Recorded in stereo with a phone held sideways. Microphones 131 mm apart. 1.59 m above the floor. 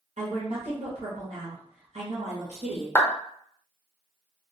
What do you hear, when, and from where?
0.2 s a woman speaking: 60° right (ahead or behind), 0.8 m
3.0 s a clap: 15° left (ahead or behind), 0.5 m